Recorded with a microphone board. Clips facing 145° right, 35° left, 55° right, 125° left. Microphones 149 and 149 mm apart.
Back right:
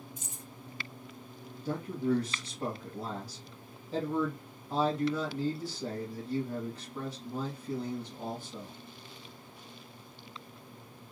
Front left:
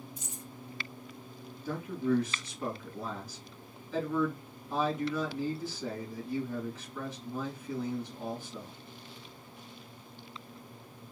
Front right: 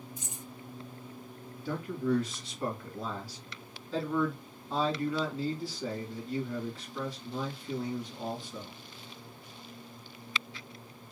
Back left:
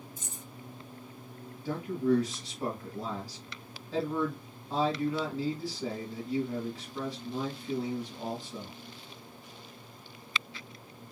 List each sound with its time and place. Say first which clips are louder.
0.2 s keys jangling: front left 3 dB, front right 1 dB; 125° right, 1.7 m
1.6 s a man speaking: even, back left 3 dB; 165° right, 1.6 m